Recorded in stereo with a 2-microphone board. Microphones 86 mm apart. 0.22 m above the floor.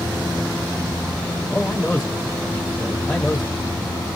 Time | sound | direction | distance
1.5 | a man speaking | 15° left (ahead or behind) | 1.7 m